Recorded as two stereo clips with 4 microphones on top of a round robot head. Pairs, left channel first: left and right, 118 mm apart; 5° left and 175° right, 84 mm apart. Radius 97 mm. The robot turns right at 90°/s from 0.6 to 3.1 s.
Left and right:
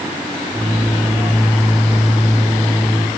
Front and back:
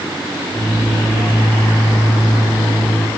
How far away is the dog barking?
No dog barking in this recording.